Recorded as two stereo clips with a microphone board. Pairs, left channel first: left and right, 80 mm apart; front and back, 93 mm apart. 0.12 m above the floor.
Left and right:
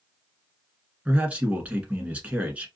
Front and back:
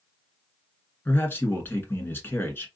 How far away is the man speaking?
About 1.2 m.